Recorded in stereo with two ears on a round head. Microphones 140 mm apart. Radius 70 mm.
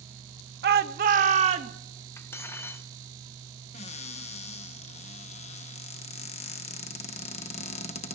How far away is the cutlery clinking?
About 0.8 m.